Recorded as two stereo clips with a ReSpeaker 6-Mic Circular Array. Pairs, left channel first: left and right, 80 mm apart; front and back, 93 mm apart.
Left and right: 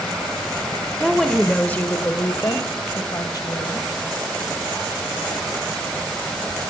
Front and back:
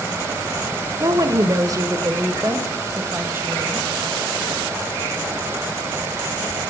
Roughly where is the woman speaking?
Behind.